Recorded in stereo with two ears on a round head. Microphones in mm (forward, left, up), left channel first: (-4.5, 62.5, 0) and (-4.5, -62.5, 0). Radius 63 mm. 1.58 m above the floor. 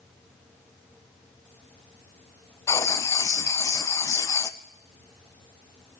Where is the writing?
20° left (ahead or behind), 0.5 m.